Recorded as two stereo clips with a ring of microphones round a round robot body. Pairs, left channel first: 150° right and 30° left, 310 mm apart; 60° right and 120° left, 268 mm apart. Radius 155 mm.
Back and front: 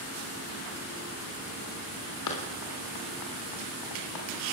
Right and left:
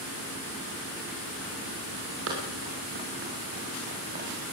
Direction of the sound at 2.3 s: 175° left.